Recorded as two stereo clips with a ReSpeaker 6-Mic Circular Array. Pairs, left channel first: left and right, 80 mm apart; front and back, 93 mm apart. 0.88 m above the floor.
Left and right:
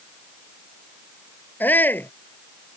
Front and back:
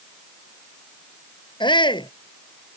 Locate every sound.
1.6 s a shout: 25° left